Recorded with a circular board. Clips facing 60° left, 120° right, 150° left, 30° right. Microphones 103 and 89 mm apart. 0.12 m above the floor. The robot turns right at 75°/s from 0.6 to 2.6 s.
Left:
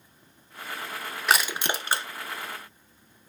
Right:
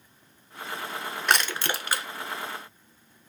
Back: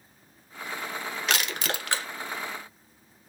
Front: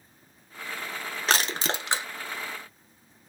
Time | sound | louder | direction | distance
1.3 | crushing | left 1 dB, front 4 dB | 30° right | 0.6 m